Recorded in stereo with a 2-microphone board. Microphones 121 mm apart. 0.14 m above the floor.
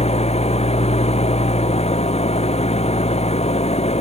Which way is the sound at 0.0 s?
60° left (ahead or behind).